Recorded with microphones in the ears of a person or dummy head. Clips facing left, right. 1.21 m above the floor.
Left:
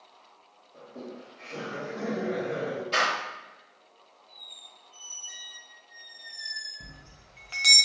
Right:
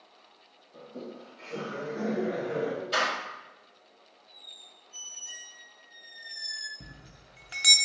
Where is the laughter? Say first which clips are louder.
Even; 60° right (ahead or behind), 1.1 m; by 2.8 s 10° right (ahead or behind), 2 m.